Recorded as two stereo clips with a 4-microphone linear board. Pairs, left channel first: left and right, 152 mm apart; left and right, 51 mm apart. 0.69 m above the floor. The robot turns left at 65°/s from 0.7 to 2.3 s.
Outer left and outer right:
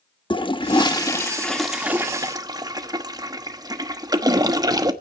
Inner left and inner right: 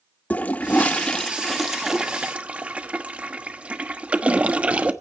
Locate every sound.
0.3 s a toilet flushing: 60° left, 1.1 m; by 4.9 s 45° right, 1.1 m